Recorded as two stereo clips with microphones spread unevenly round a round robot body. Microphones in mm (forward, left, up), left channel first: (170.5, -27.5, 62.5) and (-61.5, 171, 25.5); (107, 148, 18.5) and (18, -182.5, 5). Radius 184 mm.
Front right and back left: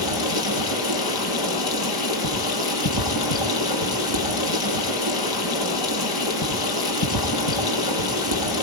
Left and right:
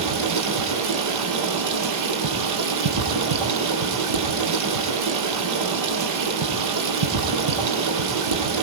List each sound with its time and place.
0.0 s running water: 70° right, 6 m